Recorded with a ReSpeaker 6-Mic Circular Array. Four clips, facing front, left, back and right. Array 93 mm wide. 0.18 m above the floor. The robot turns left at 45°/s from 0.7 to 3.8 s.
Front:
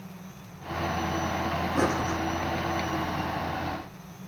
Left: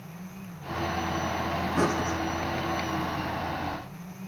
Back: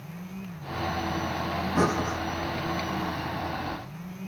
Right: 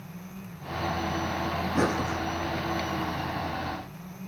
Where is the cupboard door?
I don't hear a cupboard door.